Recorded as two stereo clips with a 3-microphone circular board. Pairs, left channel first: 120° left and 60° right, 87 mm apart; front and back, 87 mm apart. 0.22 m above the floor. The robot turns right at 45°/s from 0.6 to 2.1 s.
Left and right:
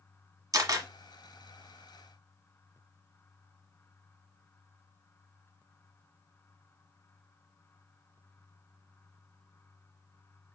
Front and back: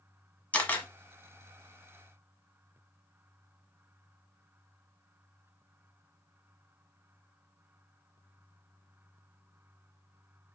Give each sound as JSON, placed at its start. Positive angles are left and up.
{"t": 0.5, "sound": "a camera shutter", "azimuth_deg": -70, "distance_m": 1.3}